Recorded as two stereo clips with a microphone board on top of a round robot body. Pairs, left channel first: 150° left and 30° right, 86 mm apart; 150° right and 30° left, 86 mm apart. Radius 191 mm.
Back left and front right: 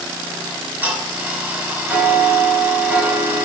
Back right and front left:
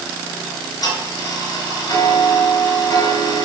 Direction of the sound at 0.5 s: 105° right.